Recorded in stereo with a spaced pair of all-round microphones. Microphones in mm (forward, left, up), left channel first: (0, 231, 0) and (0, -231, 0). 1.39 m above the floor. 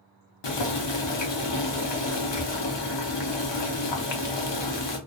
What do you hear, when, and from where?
0.4 s boiling: 65° left (ahead or behind), 0.6 m